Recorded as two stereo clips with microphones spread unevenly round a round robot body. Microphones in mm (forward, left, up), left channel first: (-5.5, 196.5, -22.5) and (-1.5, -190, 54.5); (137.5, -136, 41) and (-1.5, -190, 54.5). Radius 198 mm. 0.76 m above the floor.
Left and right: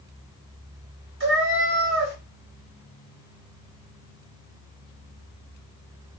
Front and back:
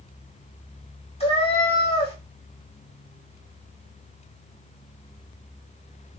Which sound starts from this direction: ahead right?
A cat meowing, at 1.2 s.